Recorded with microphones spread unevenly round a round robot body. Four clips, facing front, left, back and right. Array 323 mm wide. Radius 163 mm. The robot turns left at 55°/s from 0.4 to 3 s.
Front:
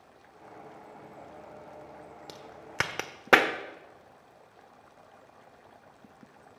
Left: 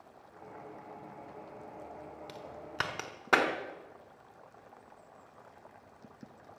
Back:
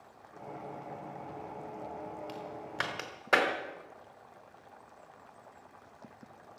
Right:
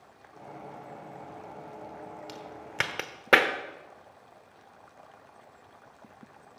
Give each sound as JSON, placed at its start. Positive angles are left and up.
{"t": 2.3, "sound": "a crack", "azimuth_deg": 15, "distance_m": 1.1}